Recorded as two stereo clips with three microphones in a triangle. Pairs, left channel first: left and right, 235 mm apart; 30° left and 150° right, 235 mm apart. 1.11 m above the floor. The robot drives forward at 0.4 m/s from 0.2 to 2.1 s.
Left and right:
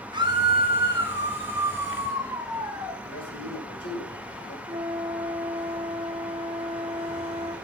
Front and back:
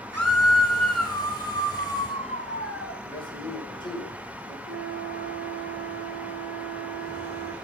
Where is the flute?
160° right, 2 m.